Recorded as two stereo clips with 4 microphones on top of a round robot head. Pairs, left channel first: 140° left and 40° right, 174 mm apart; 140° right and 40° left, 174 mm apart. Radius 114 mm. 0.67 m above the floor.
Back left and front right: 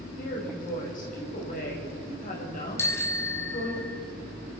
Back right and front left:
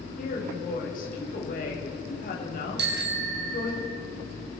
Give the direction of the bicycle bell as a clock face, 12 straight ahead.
10 o'clock.